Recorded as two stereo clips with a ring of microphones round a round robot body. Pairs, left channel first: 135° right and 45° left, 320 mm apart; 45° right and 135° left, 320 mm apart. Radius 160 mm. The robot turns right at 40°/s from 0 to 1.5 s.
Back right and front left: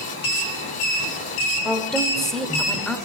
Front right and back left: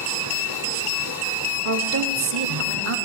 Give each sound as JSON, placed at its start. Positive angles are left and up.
{"t": 1.6, "sound": "a woman speaking", "azimuth_deg": 135, "distance_m": 1.0}